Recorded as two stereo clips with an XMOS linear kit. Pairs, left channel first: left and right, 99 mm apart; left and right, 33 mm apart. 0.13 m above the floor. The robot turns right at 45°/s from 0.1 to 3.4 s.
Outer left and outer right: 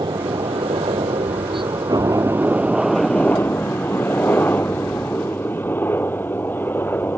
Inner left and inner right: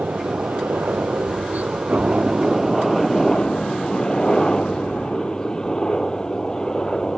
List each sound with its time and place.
0.0 s a helicopter: 125° right; by 7.2 s 20° left